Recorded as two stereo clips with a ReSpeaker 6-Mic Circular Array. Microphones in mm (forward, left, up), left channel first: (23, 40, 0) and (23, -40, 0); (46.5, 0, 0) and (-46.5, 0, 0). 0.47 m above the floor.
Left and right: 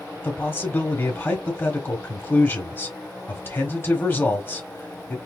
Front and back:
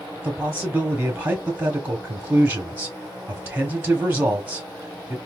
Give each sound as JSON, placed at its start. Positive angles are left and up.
{"t": 0.2, "sound": "a man speaking", "azimuth_deg": 130, "distance_m": 1.2}